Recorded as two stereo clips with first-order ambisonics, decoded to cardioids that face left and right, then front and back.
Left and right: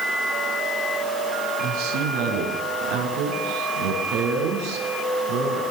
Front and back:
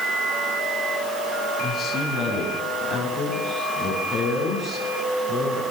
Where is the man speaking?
85° right, 6 m; by 5.6 s 90° right, 9 m.